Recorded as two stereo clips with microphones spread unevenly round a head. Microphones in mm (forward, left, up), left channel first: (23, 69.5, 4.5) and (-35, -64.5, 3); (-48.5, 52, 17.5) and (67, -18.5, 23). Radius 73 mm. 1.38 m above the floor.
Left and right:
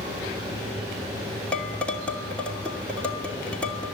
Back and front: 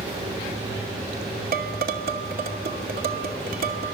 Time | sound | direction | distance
1.5 | dishes clattering | 15° right | 2.5 m